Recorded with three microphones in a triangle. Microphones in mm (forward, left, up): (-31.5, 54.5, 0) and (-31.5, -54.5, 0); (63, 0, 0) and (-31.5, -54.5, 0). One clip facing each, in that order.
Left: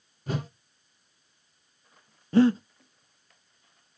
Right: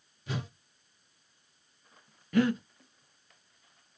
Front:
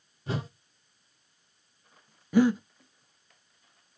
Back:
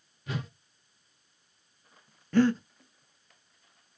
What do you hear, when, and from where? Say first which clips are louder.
0.3 s a whoosh: left 5 dB, front 3 dB; 75° left, 1.4 m
2.3 s breathing: left 6 dB, front 1 dB; 95° left, 0.8 m